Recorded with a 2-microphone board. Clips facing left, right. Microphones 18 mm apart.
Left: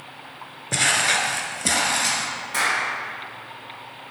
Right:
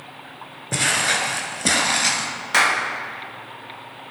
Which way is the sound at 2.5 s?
45° right (ahead or behind).